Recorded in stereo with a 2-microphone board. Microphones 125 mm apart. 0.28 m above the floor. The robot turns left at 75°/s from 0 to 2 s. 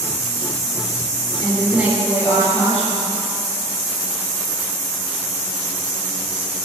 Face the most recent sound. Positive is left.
turn(degrees=-30)